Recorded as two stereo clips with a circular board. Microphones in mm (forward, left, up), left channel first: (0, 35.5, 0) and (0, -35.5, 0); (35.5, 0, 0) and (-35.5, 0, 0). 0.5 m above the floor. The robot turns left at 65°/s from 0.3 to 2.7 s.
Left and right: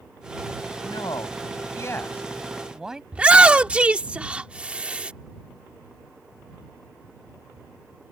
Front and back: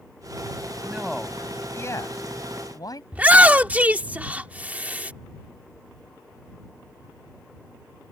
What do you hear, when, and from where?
0.8 s a man speaking: 110° left; by 3.0 s 10° right
3.1 s a shout: 140° right